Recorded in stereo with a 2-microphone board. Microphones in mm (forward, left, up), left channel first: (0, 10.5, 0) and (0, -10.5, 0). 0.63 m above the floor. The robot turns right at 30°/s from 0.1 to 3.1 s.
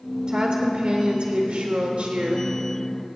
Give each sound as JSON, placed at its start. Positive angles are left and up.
{"t": 0.3, "sound": "a woman speaking", "azimuth_deg": -115, "distance_m": 1.5}